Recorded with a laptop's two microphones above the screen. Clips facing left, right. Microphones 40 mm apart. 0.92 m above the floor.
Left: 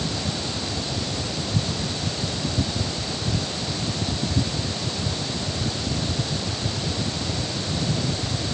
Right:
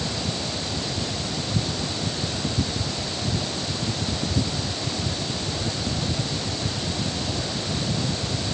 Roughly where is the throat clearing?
No throat clearing in this recording.